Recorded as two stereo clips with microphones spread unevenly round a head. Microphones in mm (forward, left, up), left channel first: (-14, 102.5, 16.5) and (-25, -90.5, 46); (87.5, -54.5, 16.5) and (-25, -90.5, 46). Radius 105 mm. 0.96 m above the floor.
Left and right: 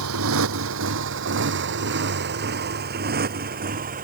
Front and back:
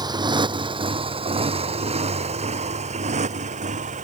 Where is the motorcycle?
110° right; by 4.0 s 145° right.